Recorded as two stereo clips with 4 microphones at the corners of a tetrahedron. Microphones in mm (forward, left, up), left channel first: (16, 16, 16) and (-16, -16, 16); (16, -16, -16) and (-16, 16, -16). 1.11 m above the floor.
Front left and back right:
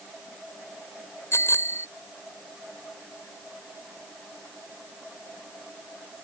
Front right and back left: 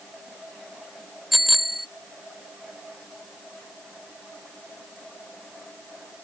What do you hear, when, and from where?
1.3 s a bicycle bell: 50° left